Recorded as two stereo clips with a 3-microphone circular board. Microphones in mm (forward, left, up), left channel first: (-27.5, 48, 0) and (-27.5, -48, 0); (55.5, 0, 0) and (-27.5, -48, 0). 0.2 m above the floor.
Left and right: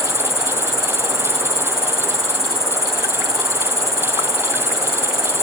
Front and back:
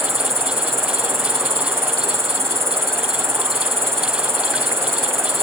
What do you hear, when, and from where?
0.0 s an insect: 150° left, 3 m